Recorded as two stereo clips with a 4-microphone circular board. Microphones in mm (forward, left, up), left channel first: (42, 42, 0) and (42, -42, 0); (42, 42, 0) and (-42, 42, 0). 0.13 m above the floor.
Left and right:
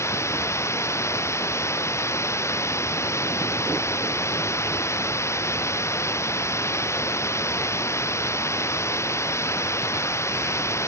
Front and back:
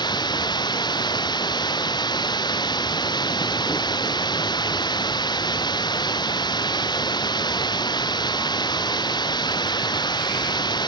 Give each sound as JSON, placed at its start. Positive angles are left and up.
{"t": 0.0, "sound": "running water", "azimuth_deg": 35}